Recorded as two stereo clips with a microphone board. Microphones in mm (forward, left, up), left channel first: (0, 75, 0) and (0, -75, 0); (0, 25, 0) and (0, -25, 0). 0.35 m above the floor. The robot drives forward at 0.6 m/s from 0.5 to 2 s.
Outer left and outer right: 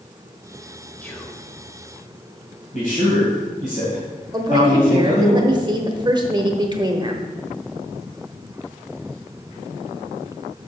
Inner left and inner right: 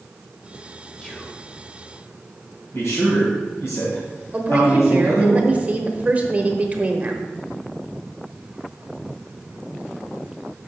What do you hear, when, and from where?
1.0 s whispering: 15° left (ahead or behind), 1.2 m
2.7 s a man speaking: 60° left (ahead or behind), 2.5 m
4.3 s a woman speaking: 30° right (ahead or behind), 0.9 m